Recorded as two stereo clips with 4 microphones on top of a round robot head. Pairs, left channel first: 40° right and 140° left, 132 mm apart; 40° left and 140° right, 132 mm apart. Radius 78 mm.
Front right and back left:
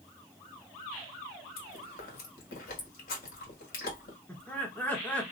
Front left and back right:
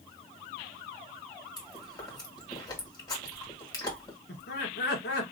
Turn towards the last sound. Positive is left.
turn(degrees=40)